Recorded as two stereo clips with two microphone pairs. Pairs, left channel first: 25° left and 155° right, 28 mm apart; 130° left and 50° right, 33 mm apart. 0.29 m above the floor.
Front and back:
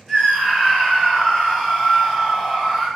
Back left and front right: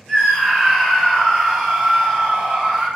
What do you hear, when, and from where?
0.1 s a scream: 65° left, 1.6 m; by 2.9 s 60° right, 1.4 m